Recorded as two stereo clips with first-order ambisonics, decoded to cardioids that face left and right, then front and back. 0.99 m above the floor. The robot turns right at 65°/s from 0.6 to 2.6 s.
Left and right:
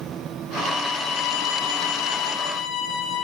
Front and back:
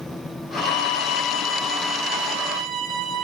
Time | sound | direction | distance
0.6 | a violin | 20° left | 5 m